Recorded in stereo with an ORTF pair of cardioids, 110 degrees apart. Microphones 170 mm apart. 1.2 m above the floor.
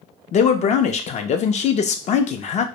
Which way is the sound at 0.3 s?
45° left.